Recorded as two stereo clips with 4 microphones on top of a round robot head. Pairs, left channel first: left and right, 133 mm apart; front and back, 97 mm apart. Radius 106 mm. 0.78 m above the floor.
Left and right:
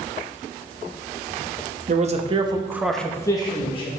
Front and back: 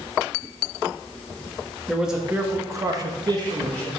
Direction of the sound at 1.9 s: 95° right.